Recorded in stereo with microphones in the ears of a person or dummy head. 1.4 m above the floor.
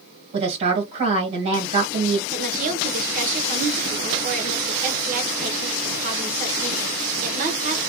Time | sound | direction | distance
0.3 | a woman speaking | 45° right (ahead or behind) | 1.4 m
2.3 | a woman speaking | 50° right (ahead or behind) | 1.1 m